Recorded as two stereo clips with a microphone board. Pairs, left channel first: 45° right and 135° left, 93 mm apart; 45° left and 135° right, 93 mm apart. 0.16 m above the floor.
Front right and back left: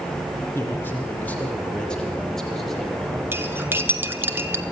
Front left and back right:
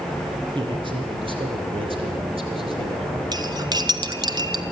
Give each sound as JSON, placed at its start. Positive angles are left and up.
{"t": 0.6, "sound": "a man speaking", "azimuth_deg": -110, "distance_m": 4.5}
{"t": 3.3, "sound": "cutlery clinking", "azimuth_deg": -165, "distance_m": 1.2}